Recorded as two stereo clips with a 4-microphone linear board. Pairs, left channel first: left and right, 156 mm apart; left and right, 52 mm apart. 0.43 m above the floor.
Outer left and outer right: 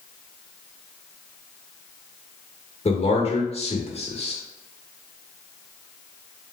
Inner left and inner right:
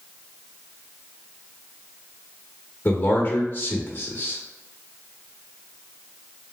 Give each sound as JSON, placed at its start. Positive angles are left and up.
{"t": 2.9, "sound": "a man speaking", "side_deg": 40, "distance_m": 0.9}